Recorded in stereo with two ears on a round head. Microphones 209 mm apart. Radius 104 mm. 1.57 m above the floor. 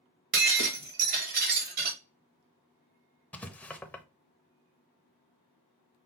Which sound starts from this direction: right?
Breaking glass, at 0.3 s.